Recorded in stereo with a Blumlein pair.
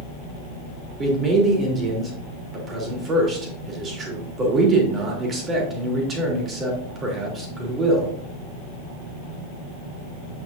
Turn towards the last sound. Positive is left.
turn(degrees=-25)